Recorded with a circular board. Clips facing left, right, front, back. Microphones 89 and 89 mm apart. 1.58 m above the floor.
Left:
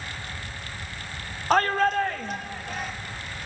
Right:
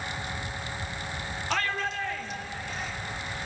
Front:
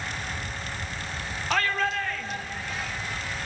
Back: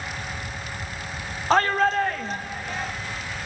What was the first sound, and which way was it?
A shout, 130° left.